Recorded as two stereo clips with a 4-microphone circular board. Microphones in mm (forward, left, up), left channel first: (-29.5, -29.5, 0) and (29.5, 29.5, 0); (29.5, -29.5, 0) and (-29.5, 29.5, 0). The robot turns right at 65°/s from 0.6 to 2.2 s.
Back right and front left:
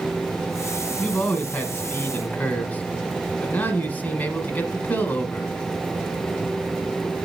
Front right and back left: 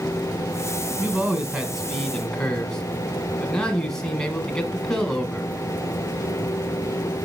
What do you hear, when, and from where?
1.0 s a man speaking: 165° left, 1.1 m; by 5.5 s 115° right, 1.1 m